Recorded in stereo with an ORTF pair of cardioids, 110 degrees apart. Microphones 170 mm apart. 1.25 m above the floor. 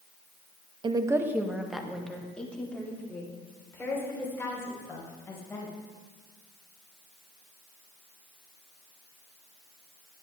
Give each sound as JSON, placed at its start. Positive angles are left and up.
{"t": 0.8, "sound": "a woman speaking", "azimuth_deg": -30, "distance_m": 0.9}